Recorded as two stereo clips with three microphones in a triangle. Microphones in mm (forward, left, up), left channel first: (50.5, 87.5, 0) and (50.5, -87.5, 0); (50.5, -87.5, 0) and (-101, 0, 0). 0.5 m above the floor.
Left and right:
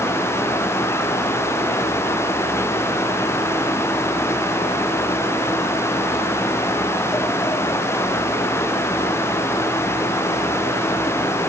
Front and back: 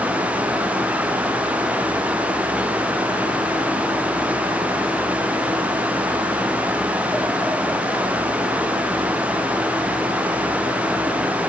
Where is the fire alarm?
No fire alarm in this recording.